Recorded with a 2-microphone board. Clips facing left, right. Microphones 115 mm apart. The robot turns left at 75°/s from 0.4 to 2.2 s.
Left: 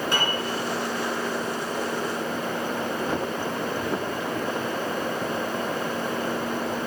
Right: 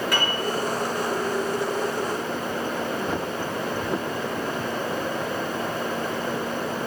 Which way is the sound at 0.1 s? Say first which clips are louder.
Even; 25° left (ahead or behind).